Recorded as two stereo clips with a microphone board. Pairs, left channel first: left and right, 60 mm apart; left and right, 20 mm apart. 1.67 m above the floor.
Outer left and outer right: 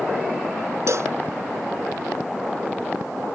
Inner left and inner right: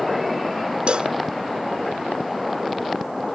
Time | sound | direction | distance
0.9 | a cowbell | 55° right (ahead or behind) | ?